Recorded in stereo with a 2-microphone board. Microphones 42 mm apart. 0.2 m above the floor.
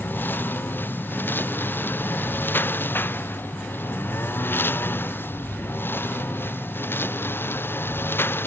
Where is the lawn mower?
50° left (ahead or behind); by 8.5 s 60° left (ahead or behind).